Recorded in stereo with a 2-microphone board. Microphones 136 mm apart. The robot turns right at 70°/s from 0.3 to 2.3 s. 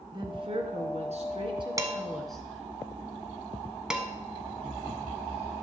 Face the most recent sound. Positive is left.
turn(degrees=-5)  # may be behind; listen again after turning